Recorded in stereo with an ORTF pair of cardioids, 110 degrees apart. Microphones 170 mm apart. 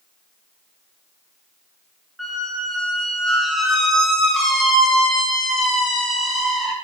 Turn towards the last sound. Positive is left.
turn(degrees=0)